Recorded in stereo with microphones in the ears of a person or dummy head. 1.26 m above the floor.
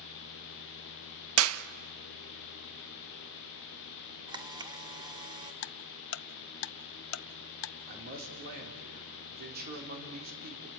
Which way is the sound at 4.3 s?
25° right (ahead or behind).